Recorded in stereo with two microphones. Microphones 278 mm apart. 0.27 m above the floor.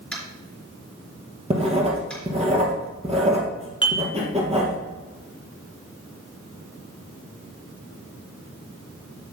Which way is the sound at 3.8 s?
15° left (ahead or behind).